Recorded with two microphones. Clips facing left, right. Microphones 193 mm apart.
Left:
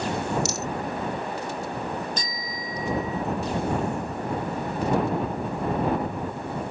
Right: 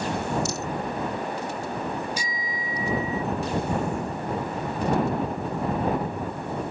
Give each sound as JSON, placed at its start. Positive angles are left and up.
{"t": 0.5, "sound": "a rattle", "side_deg": 75}
{"t": 2.2, "sound": "a bicycle bell", "side_deg": -10}